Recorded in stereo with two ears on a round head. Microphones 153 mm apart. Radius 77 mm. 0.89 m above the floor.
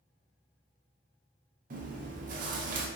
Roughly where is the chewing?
Right.